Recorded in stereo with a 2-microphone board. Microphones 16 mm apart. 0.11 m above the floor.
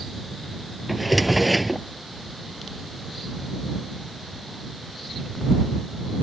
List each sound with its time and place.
0.9 s a drawer: 5° right (ahead or behind)